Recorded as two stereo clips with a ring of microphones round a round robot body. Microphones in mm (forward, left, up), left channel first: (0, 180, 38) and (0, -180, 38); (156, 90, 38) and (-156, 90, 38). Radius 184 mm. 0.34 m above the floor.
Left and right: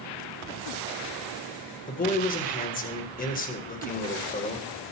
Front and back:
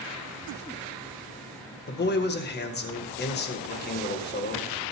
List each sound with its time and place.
1.9 s a man speaking: 35° left, 1.8 m